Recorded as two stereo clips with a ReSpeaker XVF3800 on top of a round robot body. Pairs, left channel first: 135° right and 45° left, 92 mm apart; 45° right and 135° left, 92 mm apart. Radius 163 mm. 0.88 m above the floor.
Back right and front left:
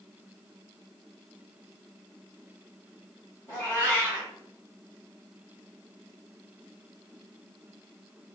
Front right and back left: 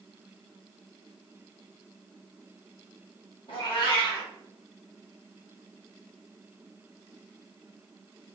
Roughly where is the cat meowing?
Right.